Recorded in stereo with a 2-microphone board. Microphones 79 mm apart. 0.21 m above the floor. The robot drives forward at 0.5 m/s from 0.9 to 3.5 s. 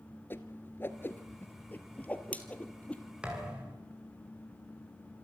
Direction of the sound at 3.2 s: 15° right (ahead or behind).